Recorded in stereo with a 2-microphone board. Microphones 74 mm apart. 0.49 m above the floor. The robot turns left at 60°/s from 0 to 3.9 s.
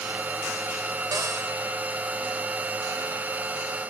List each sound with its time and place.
1.1 s a cupboard door: 60° right (ahead or behind), 1.3 m; by 1.5 s 40° right (ahead or behind), 1.3 m